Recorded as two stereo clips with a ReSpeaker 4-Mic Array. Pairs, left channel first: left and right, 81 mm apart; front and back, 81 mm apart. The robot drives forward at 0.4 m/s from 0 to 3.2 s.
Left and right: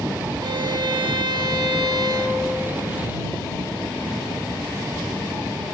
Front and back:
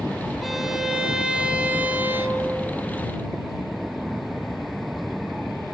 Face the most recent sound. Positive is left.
turn(degrees=-125)